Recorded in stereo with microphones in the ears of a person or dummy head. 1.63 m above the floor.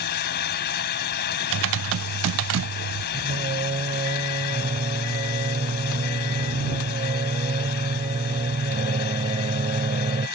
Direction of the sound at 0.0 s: 55° left (ahead or behind).